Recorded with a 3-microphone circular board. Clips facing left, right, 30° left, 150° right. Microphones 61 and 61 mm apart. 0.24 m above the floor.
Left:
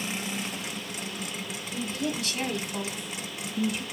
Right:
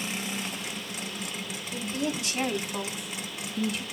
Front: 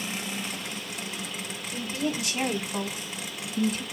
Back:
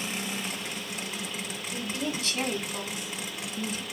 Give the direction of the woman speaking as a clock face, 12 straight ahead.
2 o'clock.